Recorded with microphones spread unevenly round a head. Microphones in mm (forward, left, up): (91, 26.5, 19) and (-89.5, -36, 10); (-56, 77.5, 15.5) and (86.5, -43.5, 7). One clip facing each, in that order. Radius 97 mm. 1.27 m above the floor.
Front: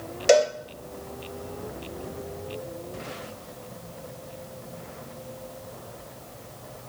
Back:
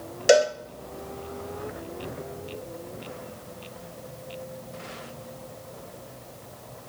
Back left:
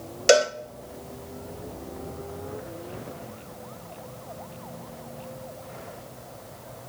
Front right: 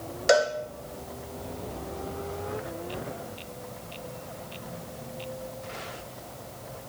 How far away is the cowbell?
About 0.5 m.